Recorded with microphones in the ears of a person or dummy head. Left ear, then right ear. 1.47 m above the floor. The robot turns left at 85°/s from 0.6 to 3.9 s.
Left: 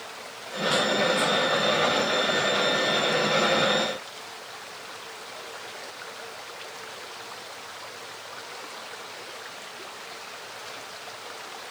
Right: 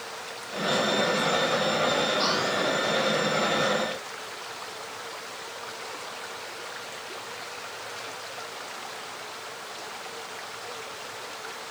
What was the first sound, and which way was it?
Only background noise.